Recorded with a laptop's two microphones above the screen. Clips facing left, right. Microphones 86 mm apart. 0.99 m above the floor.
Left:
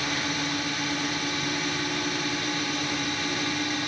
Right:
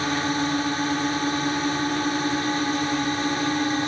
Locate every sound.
0.0 s a drone: 35° right (ahead or behind)